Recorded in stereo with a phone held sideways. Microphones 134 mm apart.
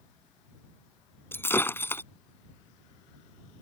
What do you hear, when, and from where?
1.3 s breaking glass: 15° left (ahead or behind)